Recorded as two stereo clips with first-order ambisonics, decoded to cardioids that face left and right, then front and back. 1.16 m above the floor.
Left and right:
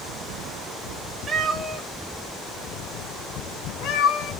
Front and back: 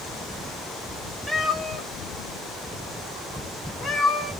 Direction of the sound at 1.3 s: 80° right.